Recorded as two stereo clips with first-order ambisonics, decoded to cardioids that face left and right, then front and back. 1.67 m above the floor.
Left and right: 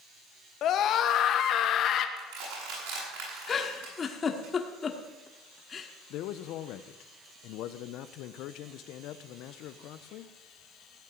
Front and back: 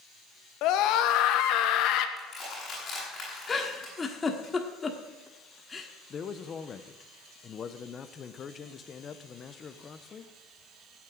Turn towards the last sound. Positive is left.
turn(degrees=65)